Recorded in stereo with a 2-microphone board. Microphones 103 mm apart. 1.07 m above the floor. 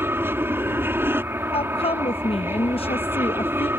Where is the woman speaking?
80° left.